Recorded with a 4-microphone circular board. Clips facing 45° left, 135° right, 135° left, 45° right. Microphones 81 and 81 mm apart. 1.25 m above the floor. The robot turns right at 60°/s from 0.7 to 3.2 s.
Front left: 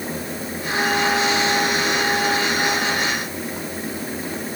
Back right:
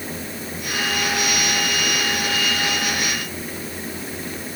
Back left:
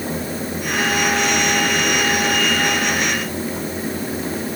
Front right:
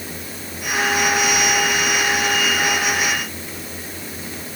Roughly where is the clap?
No clap in this recording.